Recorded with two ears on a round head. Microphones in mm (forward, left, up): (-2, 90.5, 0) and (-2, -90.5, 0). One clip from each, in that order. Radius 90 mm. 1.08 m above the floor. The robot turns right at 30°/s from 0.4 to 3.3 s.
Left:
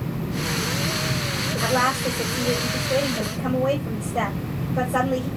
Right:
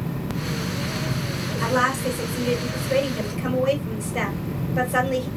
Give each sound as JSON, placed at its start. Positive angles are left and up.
{"t": 1.6, "sound": "a woman speaking", "azimuth_deg": -140, "distance_m": 3.5}